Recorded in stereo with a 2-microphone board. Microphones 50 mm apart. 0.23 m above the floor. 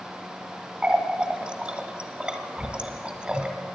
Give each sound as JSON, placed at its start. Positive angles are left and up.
{"t": 0.8, "sound": "a running tap", "side_deg": -20, "distance_m": 1.1}